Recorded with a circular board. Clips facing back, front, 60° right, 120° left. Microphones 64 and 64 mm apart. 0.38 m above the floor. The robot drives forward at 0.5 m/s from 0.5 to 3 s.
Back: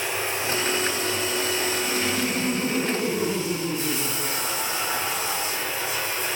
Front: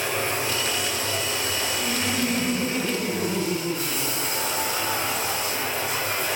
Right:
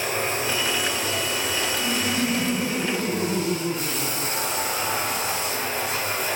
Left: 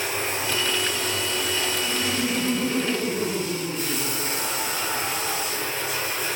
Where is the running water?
30° right, 6.5 m; by 6.4 s 35° right, 5.5 m.